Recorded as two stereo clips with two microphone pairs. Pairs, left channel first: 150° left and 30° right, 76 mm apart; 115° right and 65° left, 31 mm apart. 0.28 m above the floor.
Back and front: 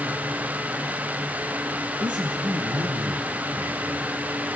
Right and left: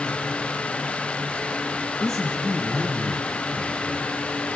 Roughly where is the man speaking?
Ahead right.